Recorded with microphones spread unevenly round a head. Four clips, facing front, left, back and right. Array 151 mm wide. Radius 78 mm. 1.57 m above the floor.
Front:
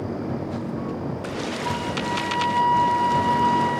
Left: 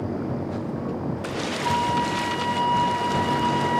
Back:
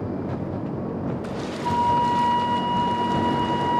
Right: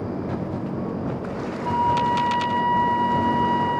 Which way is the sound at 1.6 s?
170° left.